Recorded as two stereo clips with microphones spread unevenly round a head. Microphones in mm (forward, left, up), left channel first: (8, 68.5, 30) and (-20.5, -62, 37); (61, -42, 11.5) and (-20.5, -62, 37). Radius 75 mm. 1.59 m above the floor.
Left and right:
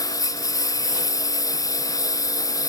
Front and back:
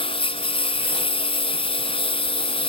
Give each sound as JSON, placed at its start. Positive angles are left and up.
{"t": 0.0, "sound": "a lawn mower", "azimuth_deg": 10}